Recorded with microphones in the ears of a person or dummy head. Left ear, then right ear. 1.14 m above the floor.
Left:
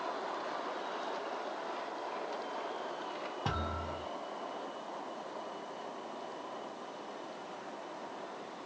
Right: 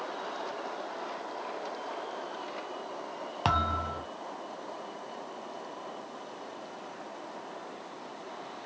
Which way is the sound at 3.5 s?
35° right (ahead or behind).